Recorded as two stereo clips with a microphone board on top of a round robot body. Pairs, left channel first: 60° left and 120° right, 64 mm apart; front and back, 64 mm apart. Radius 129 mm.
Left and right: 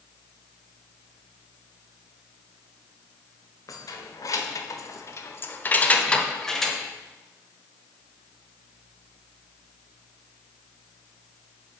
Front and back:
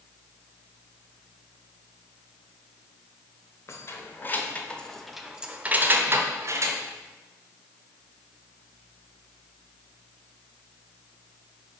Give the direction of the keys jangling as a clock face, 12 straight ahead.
11 o'clock.